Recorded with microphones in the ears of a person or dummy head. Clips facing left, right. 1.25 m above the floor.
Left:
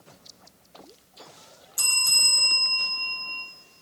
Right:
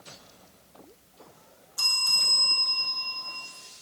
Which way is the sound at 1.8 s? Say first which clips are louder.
Left 1 dB; 25° left (ahead or behind).